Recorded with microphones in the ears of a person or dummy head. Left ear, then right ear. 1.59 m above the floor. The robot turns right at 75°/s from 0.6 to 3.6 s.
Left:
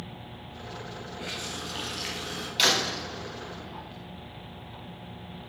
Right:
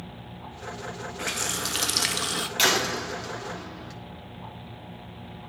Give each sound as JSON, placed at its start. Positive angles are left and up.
{"t": 1.2, "sound": "a running tap", "azimuth_deg": -145, "distance_m": 1.5}
{"t": 2.6, "sound": "a door slam", "azimuth_deg": -175, "distance_m": 2.5}